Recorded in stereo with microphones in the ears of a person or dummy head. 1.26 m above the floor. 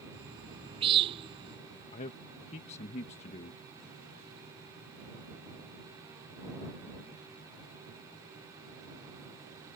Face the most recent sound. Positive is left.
turn(degrees=35)  # may be behind; listen again after turning